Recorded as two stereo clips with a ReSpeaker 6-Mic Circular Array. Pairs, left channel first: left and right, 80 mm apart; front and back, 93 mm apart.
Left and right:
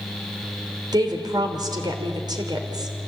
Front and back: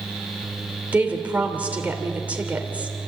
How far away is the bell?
No bell in this recording.